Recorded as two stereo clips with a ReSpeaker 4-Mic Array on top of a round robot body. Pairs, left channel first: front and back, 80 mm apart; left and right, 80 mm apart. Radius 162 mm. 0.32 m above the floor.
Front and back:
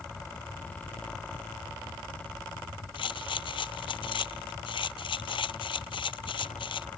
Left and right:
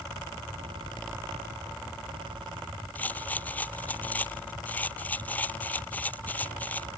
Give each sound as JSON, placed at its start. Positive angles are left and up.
{"t": 3.0, "sound": "a rattle", "azimuth_deg": 20}